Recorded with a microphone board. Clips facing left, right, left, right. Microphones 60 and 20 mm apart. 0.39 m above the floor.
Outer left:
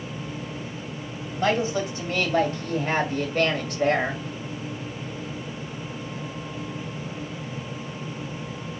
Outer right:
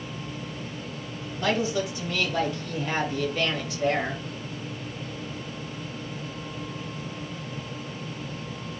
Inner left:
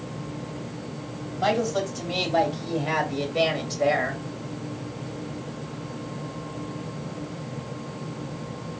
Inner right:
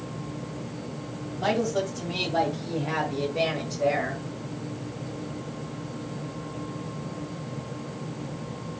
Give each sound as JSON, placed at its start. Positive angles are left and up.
{"t": 1.4, "sound": "a woman speaking", "side_deg": 35, "distance_m": 2.5}